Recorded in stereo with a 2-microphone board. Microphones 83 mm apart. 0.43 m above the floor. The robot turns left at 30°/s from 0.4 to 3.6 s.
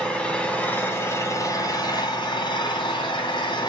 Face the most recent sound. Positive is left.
turn(degrees=70)